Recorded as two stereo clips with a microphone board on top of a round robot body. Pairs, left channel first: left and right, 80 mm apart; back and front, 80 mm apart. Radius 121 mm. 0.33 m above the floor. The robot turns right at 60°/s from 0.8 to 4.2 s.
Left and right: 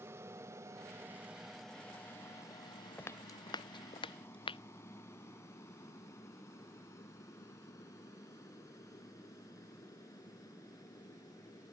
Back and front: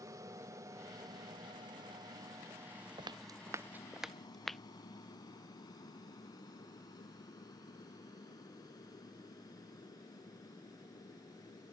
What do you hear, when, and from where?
0.0 s an aircraft: 40° right; by 11.7 s 135° left
3.0 s footsteps: 25° left; by 4.6 s 90° left